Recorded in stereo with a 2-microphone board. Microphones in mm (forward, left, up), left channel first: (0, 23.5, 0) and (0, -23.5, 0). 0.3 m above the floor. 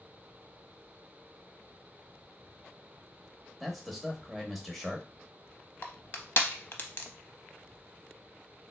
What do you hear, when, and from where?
3.6 s a man speaking: centre (ahead or behind), 0.9 m
5.8 s crushing: 50° left (ahead or behind), 0.6 m